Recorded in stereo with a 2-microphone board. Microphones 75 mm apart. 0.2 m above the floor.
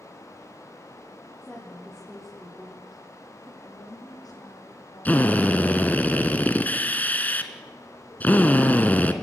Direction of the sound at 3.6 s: 55° left (ahead or behind).